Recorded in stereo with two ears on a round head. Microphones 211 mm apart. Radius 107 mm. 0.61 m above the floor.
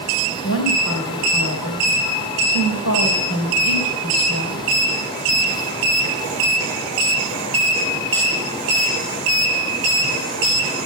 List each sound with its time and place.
0.4 s a woman speaking: 70° left (ahead or behind), 3 m